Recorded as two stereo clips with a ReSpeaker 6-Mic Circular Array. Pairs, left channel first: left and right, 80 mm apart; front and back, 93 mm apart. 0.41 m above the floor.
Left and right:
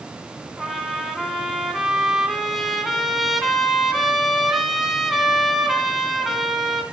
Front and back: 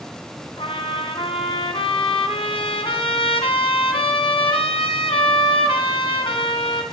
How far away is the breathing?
I don't hear breathing.